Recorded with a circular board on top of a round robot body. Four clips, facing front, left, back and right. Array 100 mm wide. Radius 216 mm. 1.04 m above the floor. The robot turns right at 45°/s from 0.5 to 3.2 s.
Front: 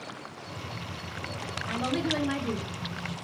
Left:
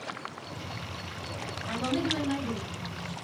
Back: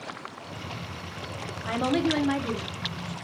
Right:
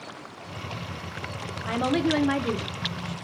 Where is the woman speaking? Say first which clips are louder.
Right 6 dB, back 5 dB; 135° right, 0.8 m; by 3.1 s 65° right, 0.8 m.